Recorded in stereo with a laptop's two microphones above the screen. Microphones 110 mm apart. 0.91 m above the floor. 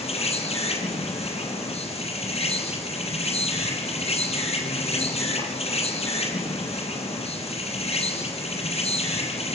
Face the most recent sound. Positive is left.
turn(degrees=70)  # may be behind; listen again after turning